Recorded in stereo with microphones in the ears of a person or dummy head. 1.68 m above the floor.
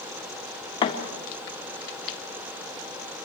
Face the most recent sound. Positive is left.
turn(degrees=25)  # may be behind; listen again after turning